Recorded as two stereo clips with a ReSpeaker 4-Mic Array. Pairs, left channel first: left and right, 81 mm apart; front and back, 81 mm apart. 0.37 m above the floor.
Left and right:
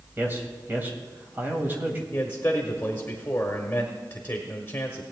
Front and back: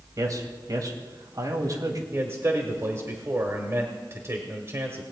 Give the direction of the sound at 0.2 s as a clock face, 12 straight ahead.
5 o'clock.